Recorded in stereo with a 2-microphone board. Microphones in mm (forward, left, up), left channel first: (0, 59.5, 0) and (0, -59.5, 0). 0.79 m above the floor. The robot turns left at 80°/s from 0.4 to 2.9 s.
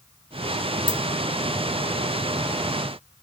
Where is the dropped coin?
45° right (ahead or behind), 0.9 m; by 1.0 s 35° right (ahead or behind), 0.9 m.